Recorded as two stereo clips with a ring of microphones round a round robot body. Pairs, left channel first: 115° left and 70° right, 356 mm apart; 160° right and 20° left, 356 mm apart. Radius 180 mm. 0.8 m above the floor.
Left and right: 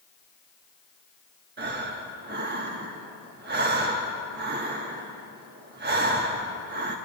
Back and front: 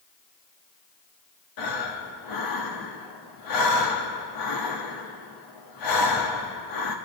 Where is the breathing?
130° right, 1.2 m.